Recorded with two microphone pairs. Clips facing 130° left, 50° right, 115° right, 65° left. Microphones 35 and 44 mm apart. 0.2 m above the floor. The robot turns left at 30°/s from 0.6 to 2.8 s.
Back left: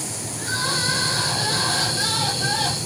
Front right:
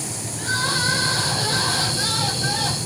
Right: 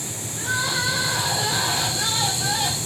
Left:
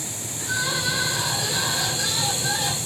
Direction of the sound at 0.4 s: 100° right.